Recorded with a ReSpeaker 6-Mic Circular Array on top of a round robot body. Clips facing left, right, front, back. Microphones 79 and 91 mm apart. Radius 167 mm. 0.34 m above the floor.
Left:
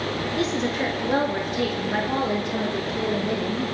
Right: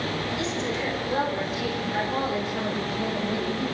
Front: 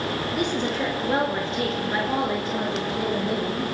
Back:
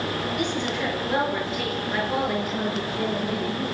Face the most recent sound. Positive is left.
turn(degrees=70)